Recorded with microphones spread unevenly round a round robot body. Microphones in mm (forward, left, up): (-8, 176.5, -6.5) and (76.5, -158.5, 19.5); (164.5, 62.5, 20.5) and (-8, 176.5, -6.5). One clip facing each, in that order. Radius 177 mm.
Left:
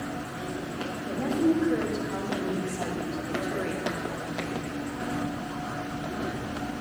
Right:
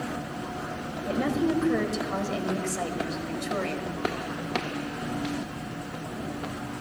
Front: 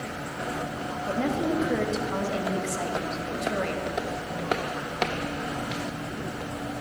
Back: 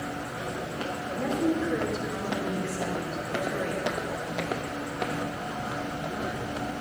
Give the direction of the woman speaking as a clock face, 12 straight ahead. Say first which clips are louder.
Left 1 dB, front 1 dB; 2 o'clock.